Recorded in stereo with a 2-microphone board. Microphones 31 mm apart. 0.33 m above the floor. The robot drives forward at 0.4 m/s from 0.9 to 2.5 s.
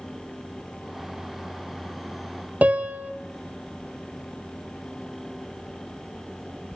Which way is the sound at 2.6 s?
60° right (ahead or behind).